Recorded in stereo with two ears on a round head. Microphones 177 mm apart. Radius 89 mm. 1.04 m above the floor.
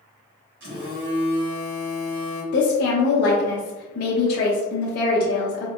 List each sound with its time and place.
0.6 s a phone buzzing: 60° right (ahead or behind), 2.0 m
2.5 s a woman speaking: 45° left (ahead or behind), 0.7 m